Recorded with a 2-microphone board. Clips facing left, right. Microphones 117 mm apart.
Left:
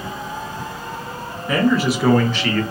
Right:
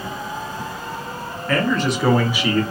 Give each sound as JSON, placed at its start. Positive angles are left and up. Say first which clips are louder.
{"t": 1.5, "sound": "a man speaking", "louder": "left 3 dB", "side_deg": 15, "distance_m": 0.9}